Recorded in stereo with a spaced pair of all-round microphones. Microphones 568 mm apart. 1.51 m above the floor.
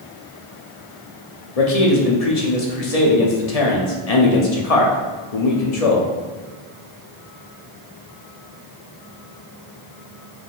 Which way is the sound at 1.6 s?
80° left.